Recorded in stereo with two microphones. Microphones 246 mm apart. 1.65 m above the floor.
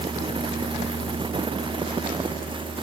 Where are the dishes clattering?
I don't hear dishes clattering.